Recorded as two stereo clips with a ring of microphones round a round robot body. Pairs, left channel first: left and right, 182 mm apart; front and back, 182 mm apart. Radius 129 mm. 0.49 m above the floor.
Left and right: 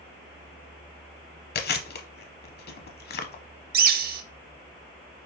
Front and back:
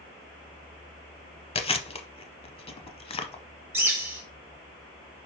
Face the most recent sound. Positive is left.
turn(degrees=-105)